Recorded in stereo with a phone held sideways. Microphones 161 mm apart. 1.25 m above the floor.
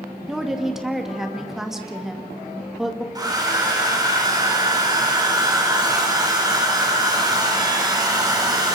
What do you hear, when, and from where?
0.3 s a woman speaking: 5° right (ahead or behind), 2 m
3.1 s a hair dryer: 25° right (ahead or behind), 4 m